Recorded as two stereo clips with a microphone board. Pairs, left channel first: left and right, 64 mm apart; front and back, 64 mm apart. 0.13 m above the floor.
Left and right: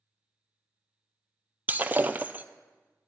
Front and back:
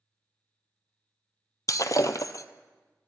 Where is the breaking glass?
30° right, 0.6 m.